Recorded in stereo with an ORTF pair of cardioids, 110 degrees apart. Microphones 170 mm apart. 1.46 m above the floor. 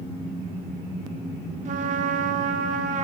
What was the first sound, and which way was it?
A trumpet, 45° right.